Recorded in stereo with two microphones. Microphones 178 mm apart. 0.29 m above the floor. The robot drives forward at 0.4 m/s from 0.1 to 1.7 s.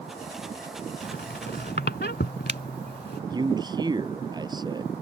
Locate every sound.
1.0 s a squeak: 75° left (ahead or behind)
3.3 s a man speaking: 25° right (ahead or behind)